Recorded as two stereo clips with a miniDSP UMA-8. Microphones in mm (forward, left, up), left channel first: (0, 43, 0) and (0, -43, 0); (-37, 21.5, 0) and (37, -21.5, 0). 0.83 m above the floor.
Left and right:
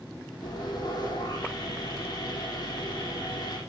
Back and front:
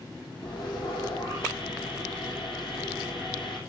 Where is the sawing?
130° left, 9.5 m.